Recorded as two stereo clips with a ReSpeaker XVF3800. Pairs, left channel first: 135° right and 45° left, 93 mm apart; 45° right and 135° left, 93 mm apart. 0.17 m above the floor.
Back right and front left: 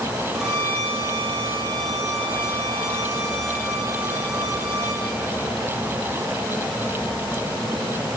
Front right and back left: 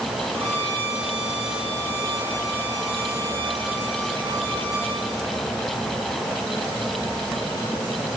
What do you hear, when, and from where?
0.3 s a violin: 130° left, 6 m